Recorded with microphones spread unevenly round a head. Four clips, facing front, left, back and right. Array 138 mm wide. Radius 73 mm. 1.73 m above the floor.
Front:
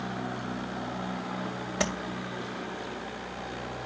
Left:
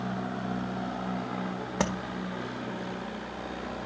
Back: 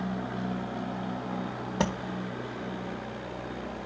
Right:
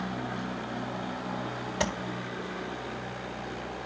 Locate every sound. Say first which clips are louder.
1.8 s tapping: left 1 dB, back 2 dB; 135° left, 1.3 m